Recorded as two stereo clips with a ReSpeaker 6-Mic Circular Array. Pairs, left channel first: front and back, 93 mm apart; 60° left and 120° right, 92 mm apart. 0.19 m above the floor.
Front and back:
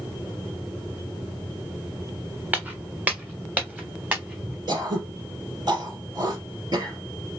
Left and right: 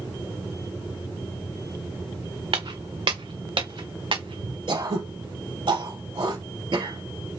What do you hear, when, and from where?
2.5 s footsteps: 105° right, 1.3 m
4.7 s throat clearing: 140° right, 3 m